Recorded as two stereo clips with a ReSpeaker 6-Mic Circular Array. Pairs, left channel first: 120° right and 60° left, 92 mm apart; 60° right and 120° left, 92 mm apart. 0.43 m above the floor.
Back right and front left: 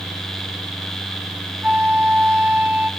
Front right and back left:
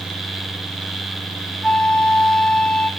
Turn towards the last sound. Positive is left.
turn(degrees=15)